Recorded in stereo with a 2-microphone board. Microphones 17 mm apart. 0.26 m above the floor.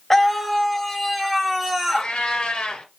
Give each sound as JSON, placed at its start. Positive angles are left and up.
{"t": 0.1, "sound": "a scream", "side_deg": 15, "distance_m": 1.1}
{"t": 1.9, "sound": "a cat meowing", "side_deg": 75, "distance_m": 1.8}